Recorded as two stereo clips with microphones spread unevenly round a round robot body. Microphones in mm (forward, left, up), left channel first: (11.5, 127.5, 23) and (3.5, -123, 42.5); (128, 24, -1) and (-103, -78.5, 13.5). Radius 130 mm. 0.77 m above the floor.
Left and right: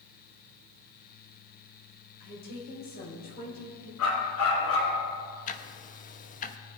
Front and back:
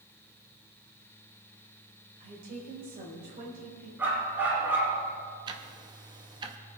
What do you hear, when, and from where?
2.2 s a woman speaking: 140° left, 3.5 m; by 3.9 s 145° left, 5 m
4.0 s a dog barking: 120° left, 3.5 m
5.5 s ticking: 130° left, 0.7 m